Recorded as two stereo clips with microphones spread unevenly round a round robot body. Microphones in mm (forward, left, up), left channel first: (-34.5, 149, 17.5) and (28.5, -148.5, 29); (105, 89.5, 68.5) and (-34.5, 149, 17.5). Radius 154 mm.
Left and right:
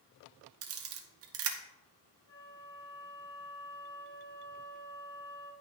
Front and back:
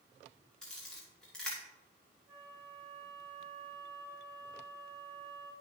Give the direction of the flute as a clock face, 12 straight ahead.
7 o'clock.